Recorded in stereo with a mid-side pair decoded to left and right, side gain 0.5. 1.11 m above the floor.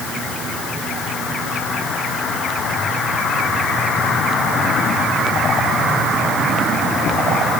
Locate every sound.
Only background noise.